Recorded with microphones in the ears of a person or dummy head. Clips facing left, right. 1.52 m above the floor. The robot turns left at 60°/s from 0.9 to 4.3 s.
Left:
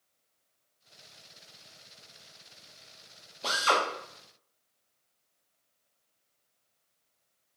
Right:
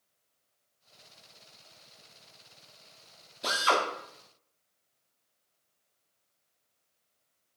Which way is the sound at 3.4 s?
15° right (ahead or behind).